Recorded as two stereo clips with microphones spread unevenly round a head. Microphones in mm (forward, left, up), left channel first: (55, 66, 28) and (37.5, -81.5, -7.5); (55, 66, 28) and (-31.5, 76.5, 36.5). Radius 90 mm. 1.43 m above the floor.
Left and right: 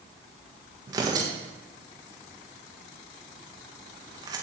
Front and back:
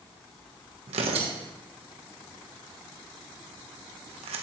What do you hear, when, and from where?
0.9 s tearing paper: 165° right, 1.3 m